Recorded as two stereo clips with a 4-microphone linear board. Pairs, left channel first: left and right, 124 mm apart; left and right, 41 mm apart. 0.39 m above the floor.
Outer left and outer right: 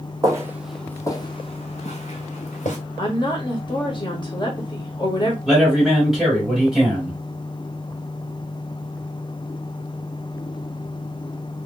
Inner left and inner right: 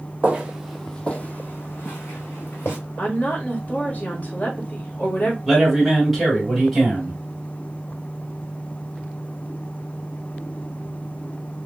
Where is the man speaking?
5° right (ahead or behind), 2.5 m.